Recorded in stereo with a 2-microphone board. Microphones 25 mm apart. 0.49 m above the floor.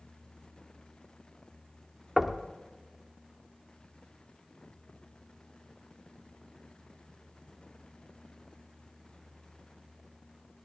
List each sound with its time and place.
2.2 s knocking: 5° right (ahead or behind), 1.0 m